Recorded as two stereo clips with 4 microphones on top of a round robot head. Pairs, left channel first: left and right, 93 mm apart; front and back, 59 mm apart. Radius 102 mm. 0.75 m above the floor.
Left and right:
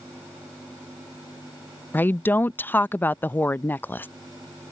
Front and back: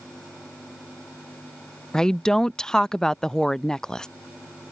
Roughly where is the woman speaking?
Ahead left.